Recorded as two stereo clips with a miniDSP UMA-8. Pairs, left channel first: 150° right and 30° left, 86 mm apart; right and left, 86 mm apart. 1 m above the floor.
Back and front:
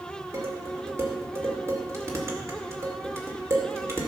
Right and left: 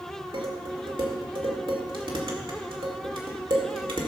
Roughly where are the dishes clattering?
Left.